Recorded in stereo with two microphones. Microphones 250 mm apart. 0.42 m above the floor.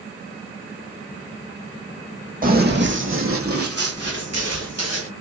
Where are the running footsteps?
35° right (ahead or behind), 1.0 m; by 5.1 s 75° right (ahead or behind), 1.8 m.